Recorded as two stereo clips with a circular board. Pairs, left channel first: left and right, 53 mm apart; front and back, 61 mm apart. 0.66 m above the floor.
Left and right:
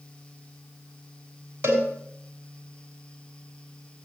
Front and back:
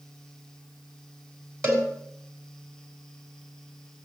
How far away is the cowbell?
About 6 m.